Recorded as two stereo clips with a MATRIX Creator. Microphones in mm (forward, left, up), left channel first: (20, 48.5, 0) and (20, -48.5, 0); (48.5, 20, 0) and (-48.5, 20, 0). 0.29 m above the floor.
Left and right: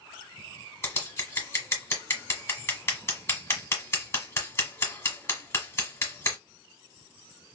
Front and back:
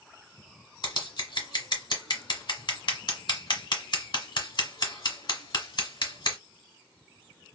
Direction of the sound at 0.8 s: 30° left.